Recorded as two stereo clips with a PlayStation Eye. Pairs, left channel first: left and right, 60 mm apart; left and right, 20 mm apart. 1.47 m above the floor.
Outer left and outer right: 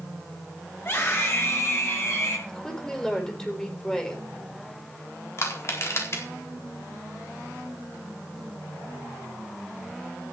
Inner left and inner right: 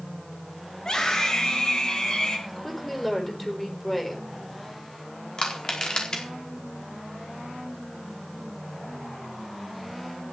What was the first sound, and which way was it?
A scream, 45° left (ahead or behind).